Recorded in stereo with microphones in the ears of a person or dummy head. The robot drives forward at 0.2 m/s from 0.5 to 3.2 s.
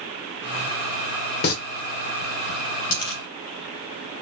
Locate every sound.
1.4 s singing: 55° left (ahead or behind), 0.9 m
2.9 s a dropped coin: 60° left (ahead or behind), 3.5 m